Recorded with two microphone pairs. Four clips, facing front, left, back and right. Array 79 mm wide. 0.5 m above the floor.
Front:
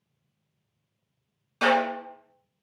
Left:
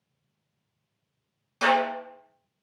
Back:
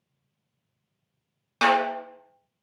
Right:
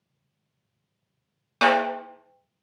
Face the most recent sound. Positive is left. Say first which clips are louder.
# right 2 dB, back 1 dB
turn(degrees=-125)